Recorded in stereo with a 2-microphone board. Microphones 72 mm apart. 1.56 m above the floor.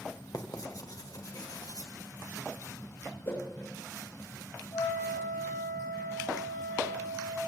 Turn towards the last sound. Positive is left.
turn(degrees=70)  # may be behind; listen again after turning